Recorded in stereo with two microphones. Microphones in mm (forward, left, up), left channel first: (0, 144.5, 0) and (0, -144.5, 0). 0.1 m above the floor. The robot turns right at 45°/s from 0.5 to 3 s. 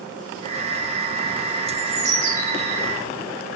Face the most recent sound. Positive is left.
turn(degrees=20)